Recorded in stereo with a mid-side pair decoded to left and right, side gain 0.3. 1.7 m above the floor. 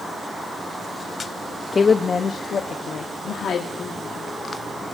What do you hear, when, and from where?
1.7 s a woman speaking: 50° left, 0.7 m; by 4.3 s 75° left, 2.0 m